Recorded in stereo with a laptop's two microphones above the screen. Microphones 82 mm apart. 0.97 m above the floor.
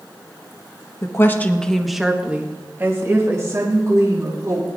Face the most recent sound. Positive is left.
turn(degrees=-45)  # may be behind; listen again after turning